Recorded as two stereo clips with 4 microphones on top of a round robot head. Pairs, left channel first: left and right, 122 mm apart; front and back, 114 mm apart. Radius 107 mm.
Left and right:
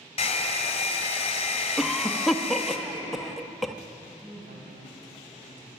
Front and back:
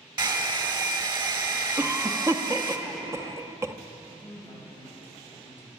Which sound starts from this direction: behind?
A cough, at 1.8 s.